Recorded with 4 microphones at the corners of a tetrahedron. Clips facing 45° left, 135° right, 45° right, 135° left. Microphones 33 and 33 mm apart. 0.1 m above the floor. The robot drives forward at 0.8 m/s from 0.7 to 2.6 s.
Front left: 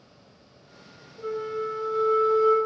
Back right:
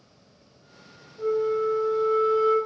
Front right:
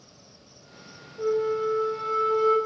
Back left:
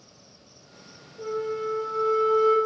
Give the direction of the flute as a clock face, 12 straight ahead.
1 o'clock.